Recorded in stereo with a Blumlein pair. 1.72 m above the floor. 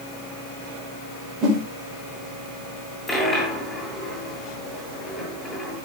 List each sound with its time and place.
1.4 s a whoosh: 30° right, 5 m
3.1 s a dropped coin: 5° left, 9.5 m